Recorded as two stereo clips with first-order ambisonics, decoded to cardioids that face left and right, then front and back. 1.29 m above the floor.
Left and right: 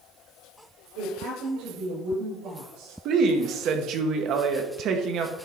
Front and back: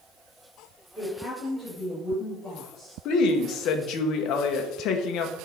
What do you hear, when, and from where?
0.9 s a woman speaking: 85° right, 4.5 m; by 3.0 s 95° right, 5 m
3.0 s a woman speaking: 40° right, 1.0 m